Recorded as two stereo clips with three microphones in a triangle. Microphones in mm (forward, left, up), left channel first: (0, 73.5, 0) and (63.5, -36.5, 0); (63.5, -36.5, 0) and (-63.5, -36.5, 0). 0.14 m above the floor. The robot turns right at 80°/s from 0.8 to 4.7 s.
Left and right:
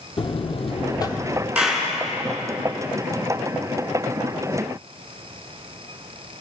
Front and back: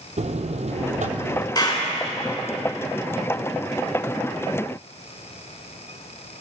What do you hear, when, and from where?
0.2 s a buzzer: 160° left, 0.7 m; by 1.4 s 150° right, 0.7 m
1.6 s a clap: 15° left, 1.5 m; by 1.9 s 40° left, 1.5 m